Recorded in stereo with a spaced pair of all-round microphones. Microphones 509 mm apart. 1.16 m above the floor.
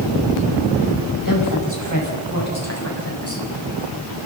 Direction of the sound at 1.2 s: 40° left (ahead or behind).